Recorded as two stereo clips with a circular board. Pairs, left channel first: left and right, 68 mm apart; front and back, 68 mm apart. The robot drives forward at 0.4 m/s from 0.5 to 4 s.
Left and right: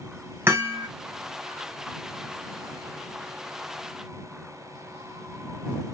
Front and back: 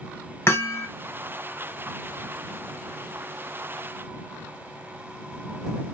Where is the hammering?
40° right, 2 m; by 0.9 s 45° right, 1.9 m.